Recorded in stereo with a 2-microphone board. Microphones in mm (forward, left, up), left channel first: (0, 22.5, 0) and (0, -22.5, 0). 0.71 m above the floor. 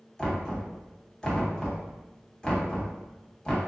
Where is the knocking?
15° left (ahead or behind), 1.1 m.